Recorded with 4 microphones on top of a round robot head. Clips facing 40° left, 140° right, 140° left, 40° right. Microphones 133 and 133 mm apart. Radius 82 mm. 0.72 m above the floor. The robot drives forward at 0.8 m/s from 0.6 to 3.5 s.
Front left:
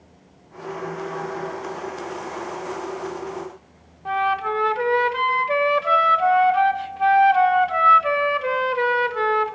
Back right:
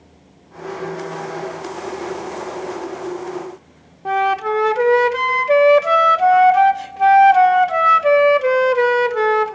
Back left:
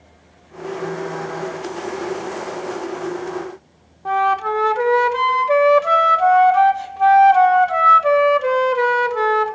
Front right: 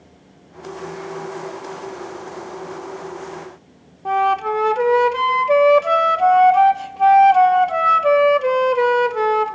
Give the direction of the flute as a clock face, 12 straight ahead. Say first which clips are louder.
Back right 5 dB, even; 4 o'clock.